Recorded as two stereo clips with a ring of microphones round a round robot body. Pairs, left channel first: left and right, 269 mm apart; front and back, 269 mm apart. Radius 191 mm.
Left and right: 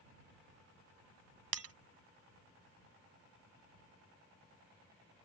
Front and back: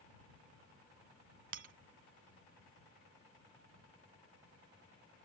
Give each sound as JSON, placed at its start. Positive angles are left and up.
{"t": 1.5, "sound": "breaking glass", "azimuth_deg": -120}